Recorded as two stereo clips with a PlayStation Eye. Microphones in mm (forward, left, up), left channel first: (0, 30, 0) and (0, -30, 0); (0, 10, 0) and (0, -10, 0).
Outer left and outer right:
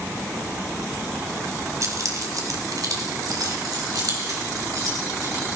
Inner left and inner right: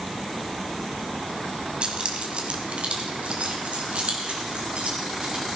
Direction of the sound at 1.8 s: 60° right (ahead or behind).